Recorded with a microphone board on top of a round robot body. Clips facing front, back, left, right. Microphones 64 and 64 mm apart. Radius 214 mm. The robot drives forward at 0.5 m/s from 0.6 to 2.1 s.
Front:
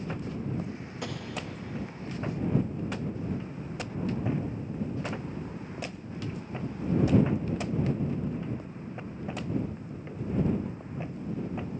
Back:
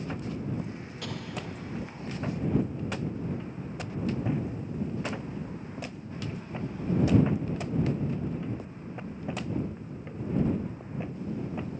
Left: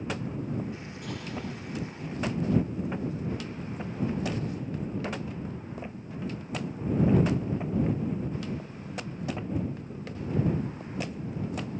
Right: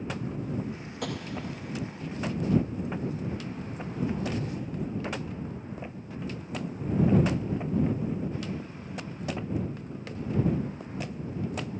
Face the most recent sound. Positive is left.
turn(degrees=-130)